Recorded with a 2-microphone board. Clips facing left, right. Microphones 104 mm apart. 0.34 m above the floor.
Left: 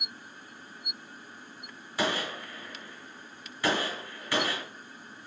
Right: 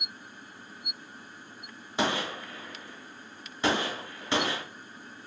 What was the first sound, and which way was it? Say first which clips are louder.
A gunshot: right 1 dB; 25° right (ahead or behind).